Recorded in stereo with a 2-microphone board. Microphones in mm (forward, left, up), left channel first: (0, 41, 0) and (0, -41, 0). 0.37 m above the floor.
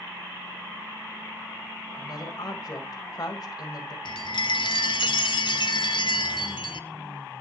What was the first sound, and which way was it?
A woman speaking, 50° left (ahead or behind).